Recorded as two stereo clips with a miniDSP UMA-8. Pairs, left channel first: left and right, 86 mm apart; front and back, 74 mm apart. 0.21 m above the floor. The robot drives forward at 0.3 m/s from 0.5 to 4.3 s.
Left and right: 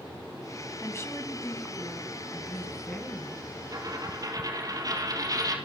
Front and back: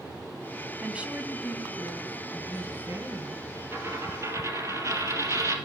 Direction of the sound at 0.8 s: 115° left.